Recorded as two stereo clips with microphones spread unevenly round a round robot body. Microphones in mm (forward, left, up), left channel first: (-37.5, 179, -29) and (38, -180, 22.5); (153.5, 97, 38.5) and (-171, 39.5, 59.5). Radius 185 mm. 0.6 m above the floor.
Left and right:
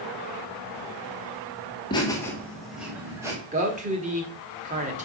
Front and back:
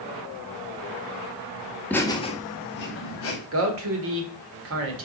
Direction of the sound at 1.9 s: 80° left.